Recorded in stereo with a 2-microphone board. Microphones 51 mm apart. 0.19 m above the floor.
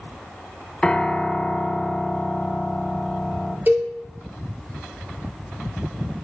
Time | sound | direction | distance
0.8 | a piano | 20° left (ahead or behind) | 0.6 m
3.7 | a cowbell | 35° right (ahead or behind) | 2 m